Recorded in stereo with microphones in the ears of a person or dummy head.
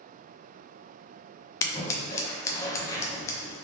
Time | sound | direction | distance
1.6 | scissors | 15° left (ahead or behind) | 0.6 m